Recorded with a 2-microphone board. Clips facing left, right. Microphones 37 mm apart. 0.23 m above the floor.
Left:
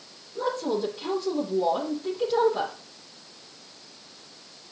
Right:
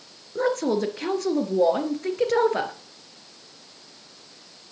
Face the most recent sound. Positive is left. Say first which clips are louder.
# right 4 dB
turn(degrees=-75)  # may be behind; listen again after turning